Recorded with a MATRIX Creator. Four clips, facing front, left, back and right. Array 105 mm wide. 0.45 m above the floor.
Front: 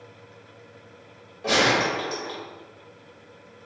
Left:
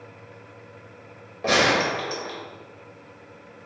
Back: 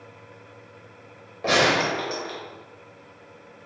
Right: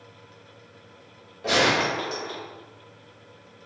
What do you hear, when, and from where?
1.4 s a gunshot: 130° left, 1.1 m